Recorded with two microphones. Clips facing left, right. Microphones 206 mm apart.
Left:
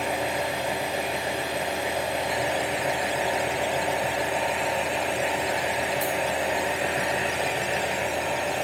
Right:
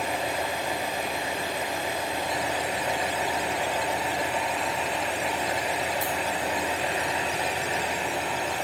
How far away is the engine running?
About 2.5 m.